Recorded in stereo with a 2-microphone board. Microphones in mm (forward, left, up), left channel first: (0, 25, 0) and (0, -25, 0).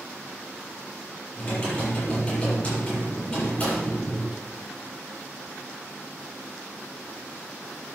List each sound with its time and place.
1.4 s typing on a keyboard: 35° left (ahead or behind), 7.5 m